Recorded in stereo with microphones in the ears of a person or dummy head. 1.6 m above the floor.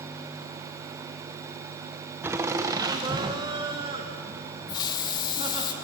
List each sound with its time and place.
2.2 s laughter: 10° right (ahead or behind), 0.9 m; by 5.7 s 25° right (ahead or behind), 2.5 m
4.7 s a hiss: 25° left (ahead or behind), 2.5 m